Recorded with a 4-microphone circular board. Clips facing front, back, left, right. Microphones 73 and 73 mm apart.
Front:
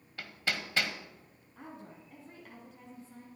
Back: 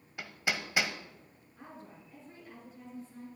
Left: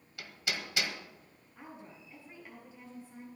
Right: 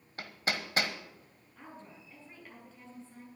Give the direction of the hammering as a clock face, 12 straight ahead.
4 o'clock.